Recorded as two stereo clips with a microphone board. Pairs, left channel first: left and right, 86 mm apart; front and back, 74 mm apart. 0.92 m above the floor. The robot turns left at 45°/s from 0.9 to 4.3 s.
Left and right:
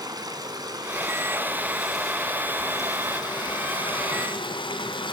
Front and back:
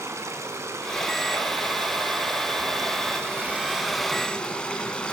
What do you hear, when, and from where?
0.0 s running water: 130° right, 2.5 m; by 5.2 s 75° left, 2.5 m